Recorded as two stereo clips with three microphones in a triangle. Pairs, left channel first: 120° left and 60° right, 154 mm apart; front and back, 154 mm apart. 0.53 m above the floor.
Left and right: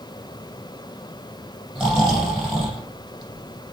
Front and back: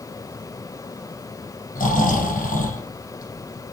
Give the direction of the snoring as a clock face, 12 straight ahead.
11 o'clock.